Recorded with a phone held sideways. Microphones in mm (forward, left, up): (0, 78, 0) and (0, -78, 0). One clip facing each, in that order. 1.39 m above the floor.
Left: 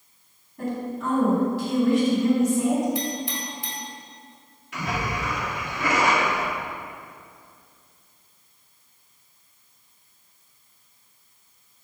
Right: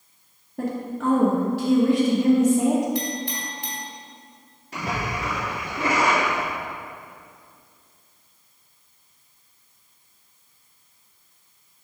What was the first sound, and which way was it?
A woman speaking, 80° right.